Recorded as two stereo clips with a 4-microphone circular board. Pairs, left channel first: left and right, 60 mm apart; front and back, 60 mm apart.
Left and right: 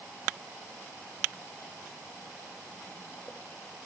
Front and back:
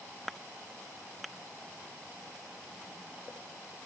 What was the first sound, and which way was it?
Only background noise.